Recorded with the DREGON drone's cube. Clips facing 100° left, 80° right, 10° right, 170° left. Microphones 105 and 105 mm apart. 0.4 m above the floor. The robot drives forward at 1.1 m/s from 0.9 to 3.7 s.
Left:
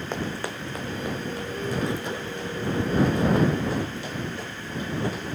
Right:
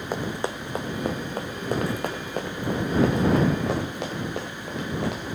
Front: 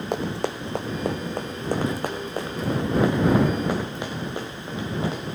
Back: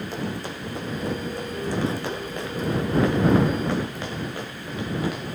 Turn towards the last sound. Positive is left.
turn(degrees=-75)